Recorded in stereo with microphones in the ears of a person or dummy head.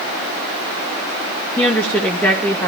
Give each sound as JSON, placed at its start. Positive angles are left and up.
{"t": 1.6, "sound": "a woman speaking", "side_deg": 5, "distance_m": 2.0}